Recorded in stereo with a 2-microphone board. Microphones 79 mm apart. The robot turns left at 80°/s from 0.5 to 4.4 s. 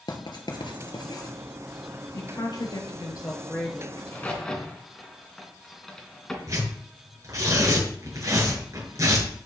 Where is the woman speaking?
130° left, 7.5 m; by 3.9 s 5° right, 7.5 m.